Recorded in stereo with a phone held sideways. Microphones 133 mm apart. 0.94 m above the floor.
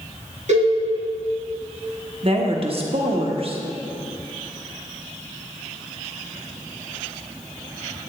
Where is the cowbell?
65° right (ahead or behind), 3.5 m.